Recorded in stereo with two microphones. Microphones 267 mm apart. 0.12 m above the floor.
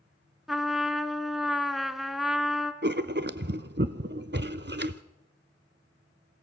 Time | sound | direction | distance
0.5 | a trumpet | centre (ahead or behind) | 1.1 m
2.8 | writing | 40° right (ahead or behind) | 0.7 m